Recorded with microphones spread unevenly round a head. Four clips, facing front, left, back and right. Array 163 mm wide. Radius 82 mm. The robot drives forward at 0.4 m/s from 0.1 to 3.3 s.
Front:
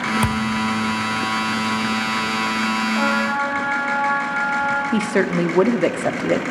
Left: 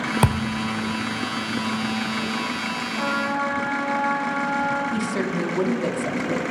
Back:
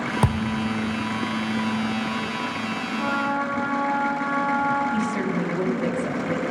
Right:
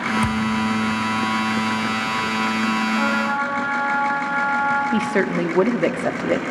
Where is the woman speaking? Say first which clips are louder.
Right 5 dB, front 5 dB; 30° right, 1.5 m.